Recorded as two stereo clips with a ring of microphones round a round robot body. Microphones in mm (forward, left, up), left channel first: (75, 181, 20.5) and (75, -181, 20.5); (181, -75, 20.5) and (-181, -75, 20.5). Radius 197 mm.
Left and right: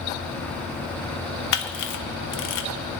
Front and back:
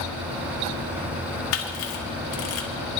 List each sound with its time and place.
1.5 s a camera shutter: 50° left, 0.9 m